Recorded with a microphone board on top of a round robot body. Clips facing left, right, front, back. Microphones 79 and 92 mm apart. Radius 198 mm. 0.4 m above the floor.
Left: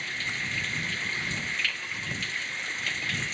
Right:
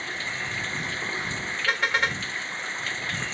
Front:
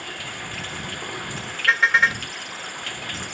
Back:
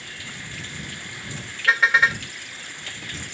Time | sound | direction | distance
0.0 | running water | 35° right | ?
1.7 | a car horn | 95° right | ?